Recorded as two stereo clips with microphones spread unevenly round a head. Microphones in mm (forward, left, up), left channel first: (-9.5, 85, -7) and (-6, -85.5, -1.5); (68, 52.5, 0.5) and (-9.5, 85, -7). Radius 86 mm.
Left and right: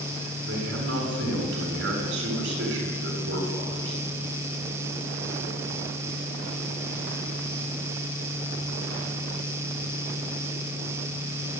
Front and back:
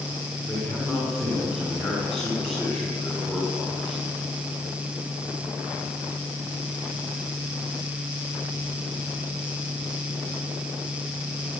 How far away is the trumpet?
No trumpet in this recording.